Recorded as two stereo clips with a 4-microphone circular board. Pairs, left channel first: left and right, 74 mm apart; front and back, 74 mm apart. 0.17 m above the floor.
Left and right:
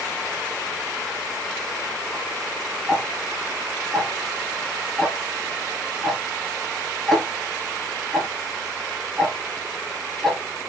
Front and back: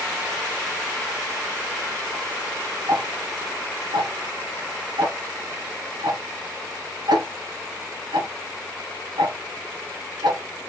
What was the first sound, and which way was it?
Ticking, 175° left.